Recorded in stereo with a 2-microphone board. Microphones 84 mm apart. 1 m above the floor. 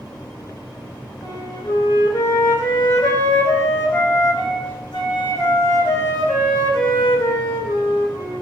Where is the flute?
80° left, 1.7 m.